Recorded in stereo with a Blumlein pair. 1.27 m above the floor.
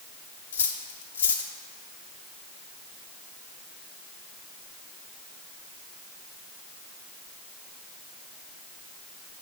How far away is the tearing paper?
No tearing paper in this recording.